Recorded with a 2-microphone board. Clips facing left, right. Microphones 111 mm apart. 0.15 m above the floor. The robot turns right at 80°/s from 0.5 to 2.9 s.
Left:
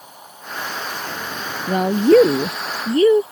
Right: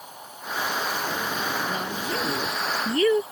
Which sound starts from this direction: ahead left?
A woman speaking, at 1.7 s.